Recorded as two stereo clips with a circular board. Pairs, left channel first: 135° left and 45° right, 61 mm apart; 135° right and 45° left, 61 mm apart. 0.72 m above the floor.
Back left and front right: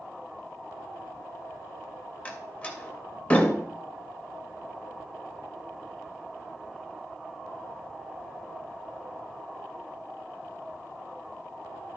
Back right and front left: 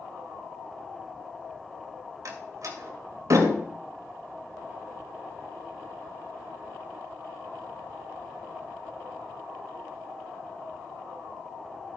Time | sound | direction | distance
2.2 | a door slam | 70° left | 2.5 m